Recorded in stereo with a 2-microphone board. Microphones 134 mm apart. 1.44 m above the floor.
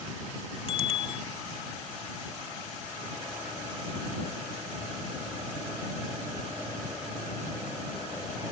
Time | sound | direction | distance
0.7 | a bicycle bell | 40° left (ahead or behind) | ?